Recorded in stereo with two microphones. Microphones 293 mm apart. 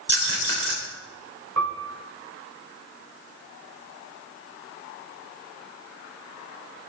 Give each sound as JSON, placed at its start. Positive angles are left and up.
{"t": 0.1, "sound": "a rattle", "side_deg": -50, "distance_m": 3.5}
{"t": 1.6, "sound": "a piano", "side_deg": -70, "distance_m": 1.6}